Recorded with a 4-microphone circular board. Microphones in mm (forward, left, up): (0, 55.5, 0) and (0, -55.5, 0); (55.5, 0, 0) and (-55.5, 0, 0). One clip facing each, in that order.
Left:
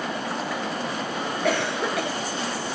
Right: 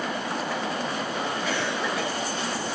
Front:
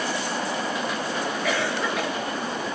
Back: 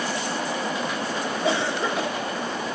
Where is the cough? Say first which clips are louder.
Left 3 dB, back 3 dB; 115° left, 1.9 m.